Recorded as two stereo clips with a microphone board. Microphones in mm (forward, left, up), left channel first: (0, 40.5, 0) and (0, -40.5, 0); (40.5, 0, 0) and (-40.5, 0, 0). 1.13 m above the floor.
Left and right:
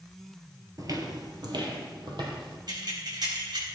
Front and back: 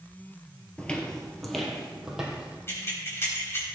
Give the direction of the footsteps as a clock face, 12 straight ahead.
2 o'clock.